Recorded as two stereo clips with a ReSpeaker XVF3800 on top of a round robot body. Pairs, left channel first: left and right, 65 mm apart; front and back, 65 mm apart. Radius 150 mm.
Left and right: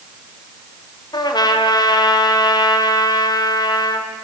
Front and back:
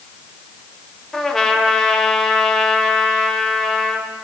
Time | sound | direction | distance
1.1 | a trumpet | 85° left | 1.3 m